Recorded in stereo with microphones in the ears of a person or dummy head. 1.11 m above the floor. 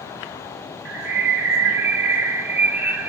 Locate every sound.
0.8 s a bird: 5° right (ahead or behind), 3 m